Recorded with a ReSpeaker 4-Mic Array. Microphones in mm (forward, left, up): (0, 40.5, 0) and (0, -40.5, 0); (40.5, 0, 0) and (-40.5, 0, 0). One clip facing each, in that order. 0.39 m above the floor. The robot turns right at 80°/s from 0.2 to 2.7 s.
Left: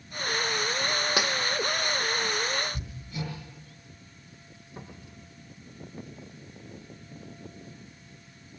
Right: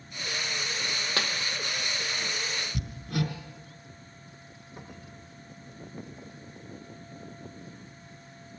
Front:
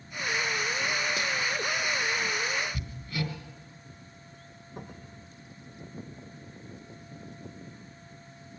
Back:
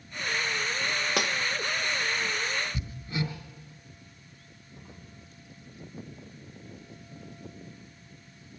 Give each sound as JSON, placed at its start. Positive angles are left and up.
{"t": 1.2, "sound": "breaking glass", "azimuth_deg": 160, "distance_m": 1.4}
{"t": 2.7, "sound": "hammering", "azimuth_deg": -115, "distance_m": 3.0}
{"t": 4.8, "sound": "a cupboard door", "azimuth_deg": 25, "distance_m": 6.0}